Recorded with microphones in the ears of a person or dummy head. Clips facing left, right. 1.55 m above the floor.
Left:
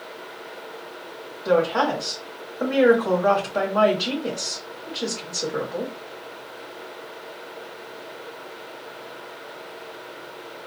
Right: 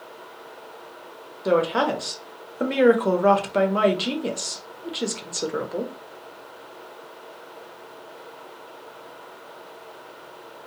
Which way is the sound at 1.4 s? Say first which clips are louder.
Left 1 dB; 45° right (ahead or behind).